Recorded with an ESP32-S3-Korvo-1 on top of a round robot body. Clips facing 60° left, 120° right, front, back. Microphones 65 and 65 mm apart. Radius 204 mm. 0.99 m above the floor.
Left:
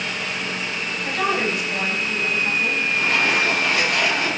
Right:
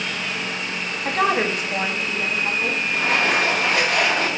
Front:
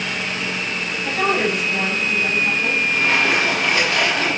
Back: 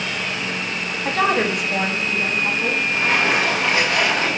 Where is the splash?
120° right, 4 m.